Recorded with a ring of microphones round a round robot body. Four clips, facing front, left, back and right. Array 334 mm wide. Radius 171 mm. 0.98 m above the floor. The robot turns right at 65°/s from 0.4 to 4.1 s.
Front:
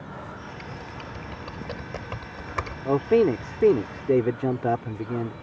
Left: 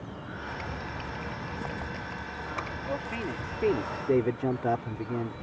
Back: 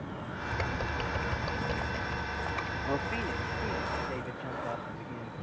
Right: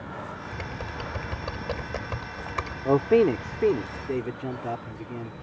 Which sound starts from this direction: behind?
Typing on a keyboard, at 0.5 s.